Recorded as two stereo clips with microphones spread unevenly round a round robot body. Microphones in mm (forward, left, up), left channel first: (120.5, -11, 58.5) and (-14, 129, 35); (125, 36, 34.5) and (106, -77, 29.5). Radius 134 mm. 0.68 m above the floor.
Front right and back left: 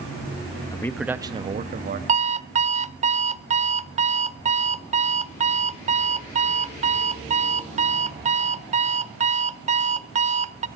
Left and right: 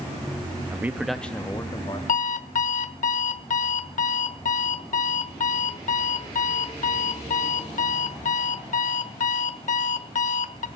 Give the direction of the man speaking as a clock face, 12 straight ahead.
3 o'clock.